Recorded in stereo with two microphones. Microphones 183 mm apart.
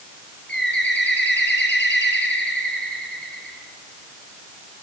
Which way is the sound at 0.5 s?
75° left (ahead or behind).